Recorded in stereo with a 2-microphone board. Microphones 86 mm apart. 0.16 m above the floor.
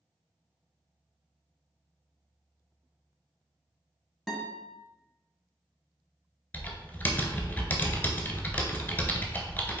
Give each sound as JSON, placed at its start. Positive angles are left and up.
{"t": 4.3, "sound": "a guitar", "side_deg": 0, "distance_m": 0.7}
{"t": 6.5, "sound": "typing on a keyboard", "side_deg": 20, "distance_m": 0.5}